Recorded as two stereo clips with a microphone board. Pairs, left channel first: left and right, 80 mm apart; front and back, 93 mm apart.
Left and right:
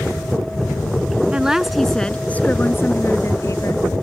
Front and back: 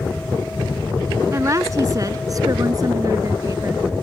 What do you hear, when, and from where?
1.3 s a woman speaking: 155° right; by 3.9 s 130° left